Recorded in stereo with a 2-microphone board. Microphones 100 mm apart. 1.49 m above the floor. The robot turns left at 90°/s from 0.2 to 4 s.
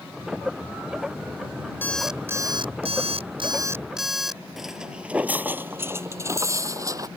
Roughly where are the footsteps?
Centre.